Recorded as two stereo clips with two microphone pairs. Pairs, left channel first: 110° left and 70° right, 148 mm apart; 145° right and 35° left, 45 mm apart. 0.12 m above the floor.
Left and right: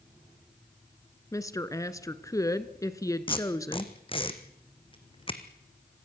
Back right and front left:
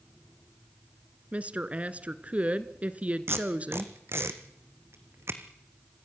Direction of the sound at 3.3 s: 55° left.